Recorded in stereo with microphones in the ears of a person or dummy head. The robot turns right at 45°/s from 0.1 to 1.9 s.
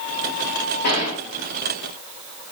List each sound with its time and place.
0.8 s a gunshot: 50° left (ahead or behind), 3 m; by 1.2 s 30° left (ahead or behind), 3 m